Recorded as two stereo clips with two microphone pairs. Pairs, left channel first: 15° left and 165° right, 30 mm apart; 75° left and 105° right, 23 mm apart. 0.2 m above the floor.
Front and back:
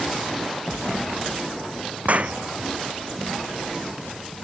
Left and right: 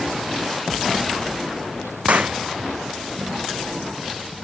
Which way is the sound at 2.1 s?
130° right.